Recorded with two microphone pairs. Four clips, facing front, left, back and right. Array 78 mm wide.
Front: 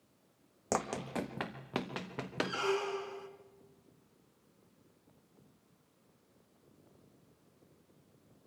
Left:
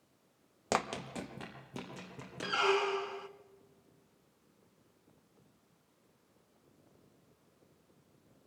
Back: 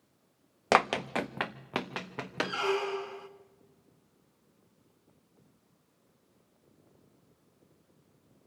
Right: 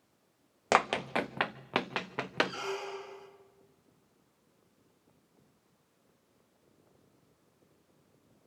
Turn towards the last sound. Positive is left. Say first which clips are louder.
# left 7 dB, back 4 dB
turn(degrees=115)